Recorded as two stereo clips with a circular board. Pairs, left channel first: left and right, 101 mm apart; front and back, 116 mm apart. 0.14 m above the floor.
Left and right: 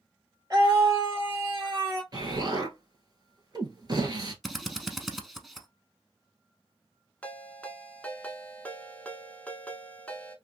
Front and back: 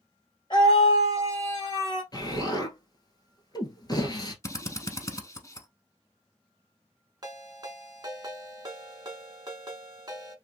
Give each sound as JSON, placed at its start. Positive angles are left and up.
{"t": 0.5, "sound": "a scream", "azimuth_deg": -40, "distance_m": 2.5}
{"t": 2.1, "sound": "an explosion", "azimuth_deg": -50, "distance_m": 1.3}
{"t": 4.4, "sound": "a drill", "azimuth_deg": 0, "distance_m": 0.6}
{"t": 7.2, "sound": "a ringtone", "azimuth_deg": 155, "distance_m": 0.7}